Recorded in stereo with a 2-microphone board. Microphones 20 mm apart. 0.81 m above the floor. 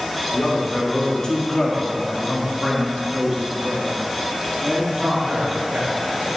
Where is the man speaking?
55° left (ahead or behind), 2.5 m; by 6.1 s 60° right (ahead or behind), 2.5 m.